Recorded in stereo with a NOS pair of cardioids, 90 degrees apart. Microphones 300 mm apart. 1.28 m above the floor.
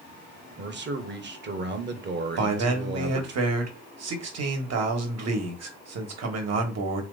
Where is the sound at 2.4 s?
60° right, 1.4 m.